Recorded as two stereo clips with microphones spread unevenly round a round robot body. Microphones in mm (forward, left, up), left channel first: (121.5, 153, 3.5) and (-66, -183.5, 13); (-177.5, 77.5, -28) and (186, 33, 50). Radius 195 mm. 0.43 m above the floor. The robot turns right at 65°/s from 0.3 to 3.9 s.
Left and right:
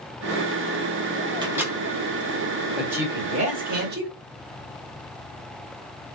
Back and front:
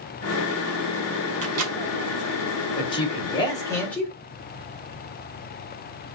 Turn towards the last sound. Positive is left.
turn(degrees=-135)